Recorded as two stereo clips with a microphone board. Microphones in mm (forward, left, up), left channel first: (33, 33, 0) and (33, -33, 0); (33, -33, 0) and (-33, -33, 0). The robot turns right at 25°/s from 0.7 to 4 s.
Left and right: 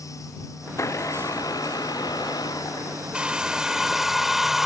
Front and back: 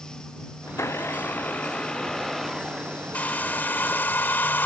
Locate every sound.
0.7 s a blender: 50° left; by 3.0 s 105° left
3.1 s a hair dryer: 30° right; by 4.7 s 10° right